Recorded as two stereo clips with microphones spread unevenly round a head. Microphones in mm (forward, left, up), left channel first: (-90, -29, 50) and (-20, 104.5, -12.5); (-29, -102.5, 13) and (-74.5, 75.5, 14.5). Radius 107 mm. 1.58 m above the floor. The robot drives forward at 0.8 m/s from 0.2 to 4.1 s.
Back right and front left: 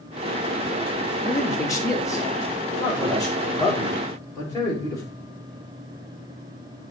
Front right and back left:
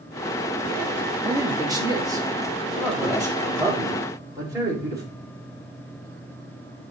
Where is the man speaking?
175° left, 2.5 m.